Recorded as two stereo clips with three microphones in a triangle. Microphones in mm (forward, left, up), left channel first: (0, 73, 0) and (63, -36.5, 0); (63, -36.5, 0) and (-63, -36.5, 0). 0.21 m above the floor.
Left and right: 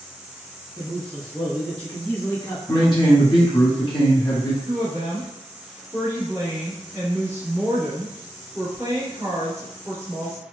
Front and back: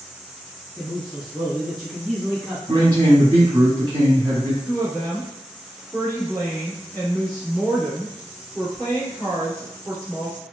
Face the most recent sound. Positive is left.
turn(degrees=-45)